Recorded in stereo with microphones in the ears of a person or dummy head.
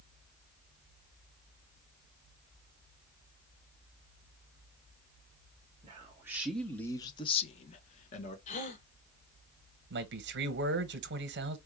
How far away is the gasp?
About 3 m.